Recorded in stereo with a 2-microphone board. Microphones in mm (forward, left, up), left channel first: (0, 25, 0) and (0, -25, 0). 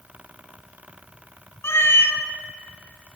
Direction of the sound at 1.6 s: 55° left (ahead or behind).